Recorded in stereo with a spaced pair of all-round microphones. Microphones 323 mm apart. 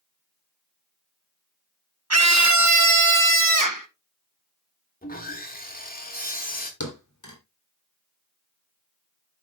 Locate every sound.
2.1 s a scream: 50° right (ahead or behind), 1.1 m; by 3.9 s 70° right (ahead or behind), 1.3 m
5.0 s sawing: 25° left (ahead or behind), 2.5 m
6.8 s a thud: 65° left (ahead or behind), 3 m